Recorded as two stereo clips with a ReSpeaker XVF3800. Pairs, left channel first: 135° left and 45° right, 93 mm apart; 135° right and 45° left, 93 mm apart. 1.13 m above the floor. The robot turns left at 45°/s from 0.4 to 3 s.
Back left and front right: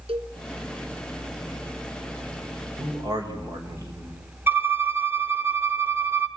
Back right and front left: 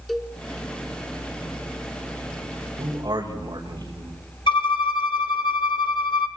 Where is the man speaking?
10° left, 5 m; by 4.2 s straight ahead, 5 m.